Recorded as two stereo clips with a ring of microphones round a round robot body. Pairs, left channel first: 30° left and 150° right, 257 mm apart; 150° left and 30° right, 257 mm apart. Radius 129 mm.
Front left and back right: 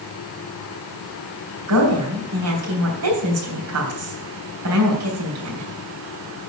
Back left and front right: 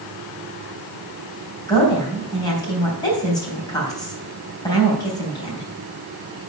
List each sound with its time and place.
1.7 s a woman speaking: 135° right, 3.5 m